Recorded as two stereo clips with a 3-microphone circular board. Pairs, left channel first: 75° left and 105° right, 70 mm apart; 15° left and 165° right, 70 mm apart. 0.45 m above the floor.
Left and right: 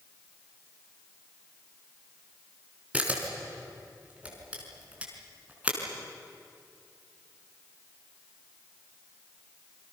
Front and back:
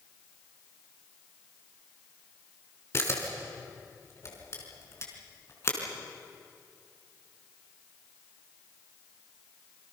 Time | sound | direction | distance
2.9 | a camera shutter | 35° right | 4.5 m